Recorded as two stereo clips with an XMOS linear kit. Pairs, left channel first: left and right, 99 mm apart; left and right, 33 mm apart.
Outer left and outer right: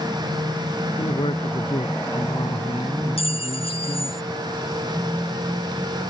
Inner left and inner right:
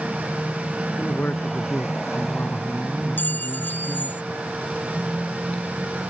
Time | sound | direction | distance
1.0 | a man speaking | 75° left (ahead or behind) | ?
3.2 | a clink | 75° left (ahead or behind) | ?